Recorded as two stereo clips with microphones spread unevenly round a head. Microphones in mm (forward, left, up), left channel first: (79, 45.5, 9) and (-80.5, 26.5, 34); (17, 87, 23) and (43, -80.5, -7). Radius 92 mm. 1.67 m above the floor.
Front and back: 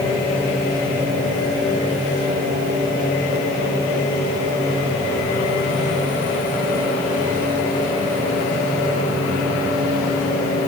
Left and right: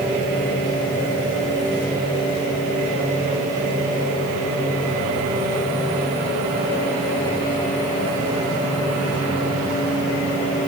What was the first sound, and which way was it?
Only background noise.